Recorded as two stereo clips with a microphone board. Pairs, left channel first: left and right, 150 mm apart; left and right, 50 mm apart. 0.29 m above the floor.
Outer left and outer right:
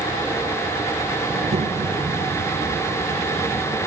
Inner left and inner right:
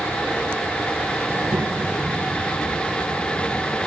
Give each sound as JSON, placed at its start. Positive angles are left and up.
{"t": 1.3, "sound": "a child speaking", "side_deg": -50, "distance_m": 1.6}